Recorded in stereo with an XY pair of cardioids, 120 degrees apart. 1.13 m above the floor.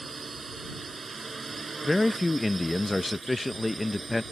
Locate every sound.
0.0 s a drone: 20° right
1.8 s a man speaking: 10° left